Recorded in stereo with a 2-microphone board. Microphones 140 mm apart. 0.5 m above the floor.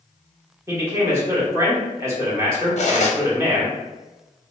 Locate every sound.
0.7 s a man speaking: 20° right (ahead or behind), 1.0 m
2.8 s cutlery clinking: 55° left (ahead or behind), 0.6 m